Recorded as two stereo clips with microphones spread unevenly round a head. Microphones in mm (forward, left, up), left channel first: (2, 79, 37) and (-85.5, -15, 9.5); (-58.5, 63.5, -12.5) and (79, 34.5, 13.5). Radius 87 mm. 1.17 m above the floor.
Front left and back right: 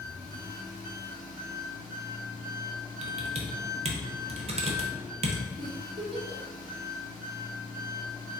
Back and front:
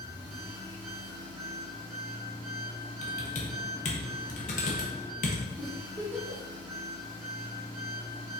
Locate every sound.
0.0 s an engine running: 60° right, 1.3 m
3.0 s typing on a keyboard: 155° right, 0.8 m
5.6 s a giggle: 85° right, 1.1 m